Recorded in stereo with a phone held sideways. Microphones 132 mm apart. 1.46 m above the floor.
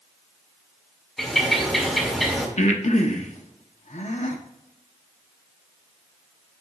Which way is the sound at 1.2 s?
Centre (ahead or behind).